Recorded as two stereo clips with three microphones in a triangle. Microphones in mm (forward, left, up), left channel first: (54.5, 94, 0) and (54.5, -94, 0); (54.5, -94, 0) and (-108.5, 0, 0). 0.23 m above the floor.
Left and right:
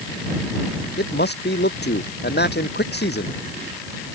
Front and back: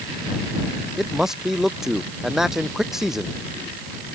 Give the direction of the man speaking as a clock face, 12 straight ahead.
10 o'clock.